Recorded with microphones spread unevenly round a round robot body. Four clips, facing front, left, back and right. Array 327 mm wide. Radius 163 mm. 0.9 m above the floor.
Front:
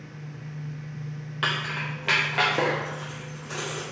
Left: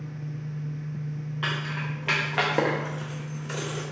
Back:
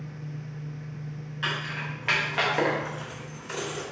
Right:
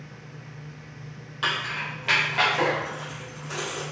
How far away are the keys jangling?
About 0.6 m.